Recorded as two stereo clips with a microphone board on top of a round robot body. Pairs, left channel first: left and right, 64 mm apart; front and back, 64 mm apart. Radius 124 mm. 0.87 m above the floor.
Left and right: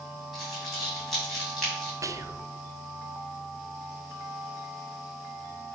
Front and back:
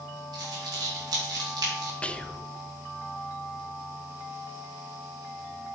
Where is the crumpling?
Straight behind, 3.5 m.